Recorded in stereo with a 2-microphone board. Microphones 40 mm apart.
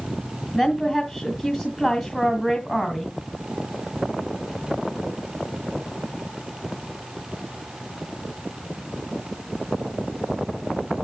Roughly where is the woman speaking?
Centre.